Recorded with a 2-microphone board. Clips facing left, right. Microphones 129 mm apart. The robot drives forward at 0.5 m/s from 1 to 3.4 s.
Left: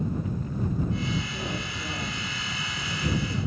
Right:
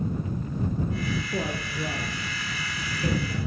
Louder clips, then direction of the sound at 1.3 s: Right 4 dB; 45° right (ahead or behind).